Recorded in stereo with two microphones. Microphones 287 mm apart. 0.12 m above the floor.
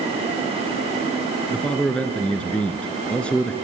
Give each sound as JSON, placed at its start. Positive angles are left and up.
{"t": 1.5, "sound": "a man speaking", "side_deg": 5, "distance_m": 1.5}